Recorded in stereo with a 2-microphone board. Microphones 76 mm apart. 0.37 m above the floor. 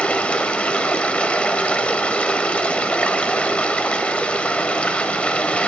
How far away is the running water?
About 0.8 m.